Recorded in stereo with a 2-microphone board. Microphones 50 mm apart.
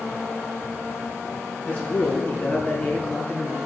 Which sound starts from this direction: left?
A man speaking, at 1.6 s.